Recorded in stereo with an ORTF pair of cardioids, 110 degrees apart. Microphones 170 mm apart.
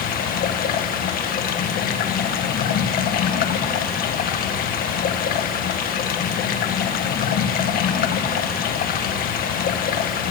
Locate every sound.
0.0 s running water: 65° left, 1.6 m